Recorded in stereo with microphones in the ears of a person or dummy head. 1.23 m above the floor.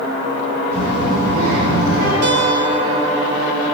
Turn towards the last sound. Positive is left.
turn(degrees=-90)